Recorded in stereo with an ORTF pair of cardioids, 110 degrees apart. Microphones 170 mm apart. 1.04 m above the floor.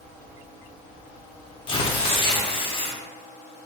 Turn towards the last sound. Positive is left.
turn(degrees=30)